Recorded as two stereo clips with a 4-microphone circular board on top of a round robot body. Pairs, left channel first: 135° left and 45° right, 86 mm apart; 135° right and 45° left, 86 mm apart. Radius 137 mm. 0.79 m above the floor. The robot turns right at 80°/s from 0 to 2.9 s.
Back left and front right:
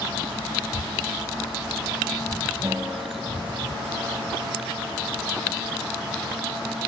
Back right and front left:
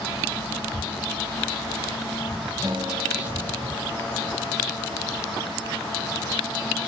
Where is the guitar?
Straight ahead, 0.6 m; by 4.1 s 20° left, 0.6 m.